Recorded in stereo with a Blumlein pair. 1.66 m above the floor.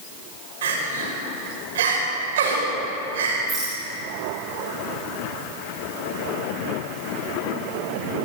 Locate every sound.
0.6 s crying: 60° right, 6.5 m
3.5 s a rattle: 25° right, 10 m